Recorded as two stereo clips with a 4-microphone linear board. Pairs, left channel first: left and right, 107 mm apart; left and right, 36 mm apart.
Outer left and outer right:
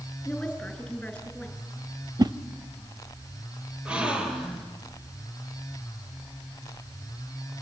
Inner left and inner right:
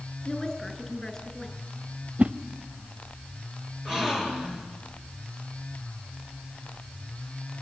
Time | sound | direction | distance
0.2 | a woman speaking | 10° left (ahead or behind) | 5.5 m
2.2 | a whoosh | 40° right (ahead or behind) | 0.6 m
3.9 | a gasp | 10° right (ahead or behind) | 3.5 m